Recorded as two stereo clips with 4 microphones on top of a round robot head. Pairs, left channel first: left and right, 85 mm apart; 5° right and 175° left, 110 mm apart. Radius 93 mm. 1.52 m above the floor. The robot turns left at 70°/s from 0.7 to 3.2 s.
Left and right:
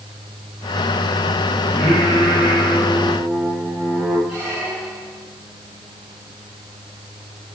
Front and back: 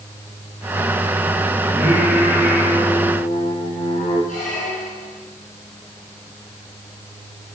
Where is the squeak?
Straight ahead, 6.5 m.